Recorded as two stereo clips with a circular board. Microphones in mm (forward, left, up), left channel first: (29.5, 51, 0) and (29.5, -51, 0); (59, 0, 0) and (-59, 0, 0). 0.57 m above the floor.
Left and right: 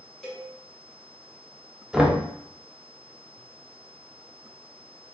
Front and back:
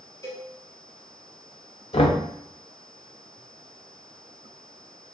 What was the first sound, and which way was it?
A cowbell, 5° left.